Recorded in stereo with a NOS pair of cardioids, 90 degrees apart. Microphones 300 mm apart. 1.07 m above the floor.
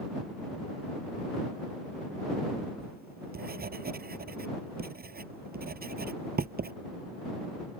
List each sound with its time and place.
2.8 s writing: 30° right